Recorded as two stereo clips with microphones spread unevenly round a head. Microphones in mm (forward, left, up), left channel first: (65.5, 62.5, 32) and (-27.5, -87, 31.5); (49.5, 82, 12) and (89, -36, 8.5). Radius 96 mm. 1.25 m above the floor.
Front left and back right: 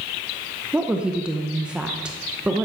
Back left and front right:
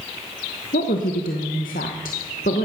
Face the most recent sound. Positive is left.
turn(degrees=155)